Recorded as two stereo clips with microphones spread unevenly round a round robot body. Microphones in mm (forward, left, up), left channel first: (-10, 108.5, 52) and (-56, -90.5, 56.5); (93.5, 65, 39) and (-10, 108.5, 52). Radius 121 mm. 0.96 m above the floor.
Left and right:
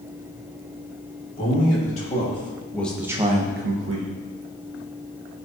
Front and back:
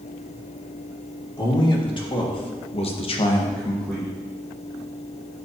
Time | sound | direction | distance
1.4 | a man speaking | 25° left | 3 m